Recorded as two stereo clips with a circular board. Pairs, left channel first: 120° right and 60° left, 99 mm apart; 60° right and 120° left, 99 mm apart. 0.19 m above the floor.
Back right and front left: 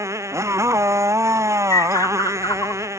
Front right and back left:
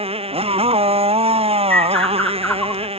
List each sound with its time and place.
0.0 s a motorcycle: 120° left
1.7 s a bird: 125° right